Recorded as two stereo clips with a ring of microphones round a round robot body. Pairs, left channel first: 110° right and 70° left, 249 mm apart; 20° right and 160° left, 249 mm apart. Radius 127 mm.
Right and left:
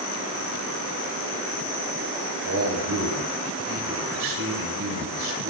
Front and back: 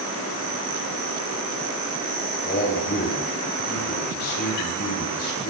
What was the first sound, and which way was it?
A man speaking, 30° left.